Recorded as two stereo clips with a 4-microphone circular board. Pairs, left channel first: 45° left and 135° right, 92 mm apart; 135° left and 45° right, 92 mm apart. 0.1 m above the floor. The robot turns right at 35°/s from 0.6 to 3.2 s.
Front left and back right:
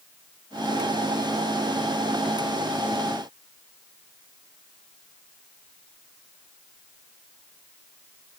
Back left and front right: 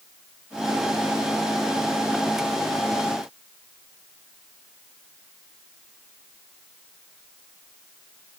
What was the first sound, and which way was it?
Only background noise.